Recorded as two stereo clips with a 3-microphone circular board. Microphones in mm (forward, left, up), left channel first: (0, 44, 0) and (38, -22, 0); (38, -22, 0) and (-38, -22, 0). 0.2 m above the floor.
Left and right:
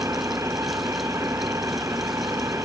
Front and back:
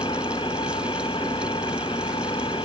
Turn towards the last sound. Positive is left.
turn(degrees=-5)